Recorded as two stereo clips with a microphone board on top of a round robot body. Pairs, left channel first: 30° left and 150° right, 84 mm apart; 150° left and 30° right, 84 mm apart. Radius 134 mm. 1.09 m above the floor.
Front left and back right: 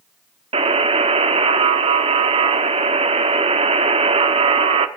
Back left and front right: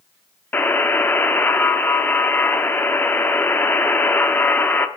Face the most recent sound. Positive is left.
turn(degrees=-140)